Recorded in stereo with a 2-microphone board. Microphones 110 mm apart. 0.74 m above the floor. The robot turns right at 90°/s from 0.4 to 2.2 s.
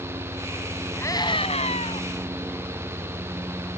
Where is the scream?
20° left; by 2.1 s 120° left.